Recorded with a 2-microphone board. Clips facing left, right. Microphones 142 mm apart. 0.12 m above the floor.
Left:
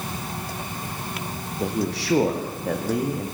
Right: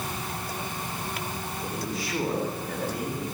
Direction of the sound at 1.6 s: 75° left (ahead or behind).